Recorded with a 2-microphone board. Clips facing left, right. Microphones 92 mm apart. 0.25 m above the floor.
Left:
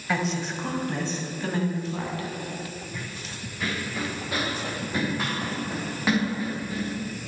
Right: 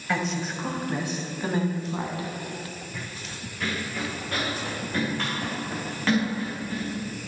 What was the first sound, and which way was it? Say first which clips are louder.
A woman speaking: left 1 dB; centre (ahead or behind).